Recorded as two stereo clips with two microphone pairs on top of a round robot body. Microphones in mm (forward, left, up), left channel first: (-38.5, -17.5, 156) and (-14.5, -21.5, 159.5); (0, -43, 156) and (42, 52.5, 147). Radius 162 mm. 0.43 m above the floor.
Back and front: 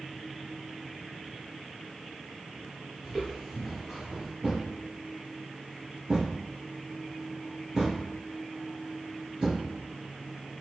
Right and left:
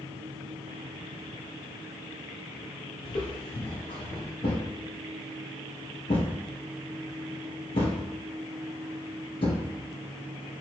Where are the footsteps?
80° right, 0.6 m.